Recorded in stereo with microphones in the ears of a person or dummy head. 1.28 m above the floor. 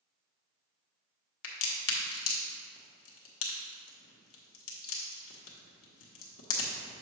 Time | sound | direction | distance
1.4 | a crack | 75° left (ahead or behind) | 1.2 m